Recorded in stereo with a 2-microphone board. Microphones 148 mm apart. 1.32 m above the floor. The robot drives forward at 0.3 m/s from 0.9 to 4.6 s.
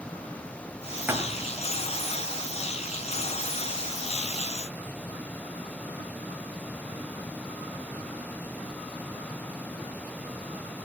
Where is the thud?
15° right (ahead or behind), 1.7 m.